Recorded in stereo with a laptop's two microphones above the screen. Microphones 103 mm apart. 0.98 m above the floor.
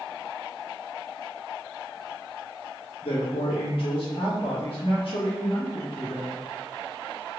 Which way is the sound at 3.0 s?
60° left (ahead or behind).